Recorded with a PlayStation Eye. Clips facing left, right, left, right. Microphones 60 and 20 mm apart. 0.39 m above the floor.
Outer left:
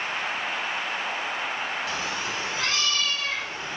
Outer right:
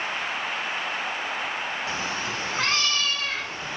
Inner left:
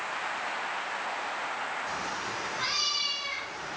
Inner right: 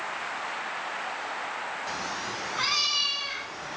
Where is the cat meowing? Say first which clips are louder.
Even, inner right 1 dB; 35° right (ahead or behind), 0.7 m; by 3.8 s 55° right (ahead or behind), 2 m.